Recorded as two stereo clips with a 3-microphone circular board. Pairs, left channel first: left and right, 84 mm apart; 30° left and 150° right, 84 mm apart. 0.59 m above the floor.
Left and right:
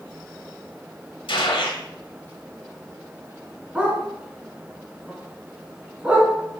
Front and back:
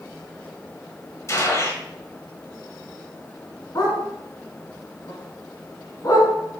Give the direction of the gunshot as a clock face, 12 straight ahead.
9 o'clock.